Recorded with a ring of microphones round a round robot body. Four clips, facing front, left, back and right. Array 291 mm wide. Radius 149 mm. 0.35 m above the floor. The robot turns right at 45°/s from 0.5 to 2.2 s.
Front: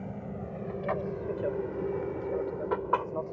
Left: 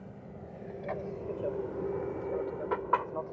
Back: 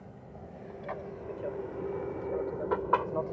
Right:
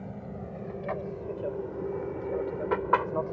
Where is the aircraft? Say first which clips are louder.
Right 7 dB, front 9 dB; 30° right; by 3.3 s 105° right.